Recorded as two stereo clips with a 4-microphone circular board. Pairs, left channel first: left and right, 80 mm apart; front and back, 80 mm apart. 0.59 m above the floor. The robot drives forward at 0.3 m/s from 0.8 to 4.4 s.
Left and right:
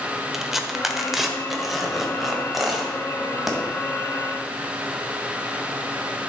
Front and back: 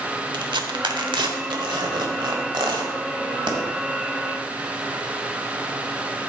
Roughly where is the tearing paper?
Behind.